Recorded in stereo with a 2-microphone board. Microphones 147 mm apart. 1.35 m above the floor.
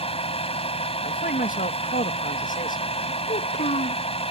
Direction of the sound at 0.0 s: 45° left (ahead or behind).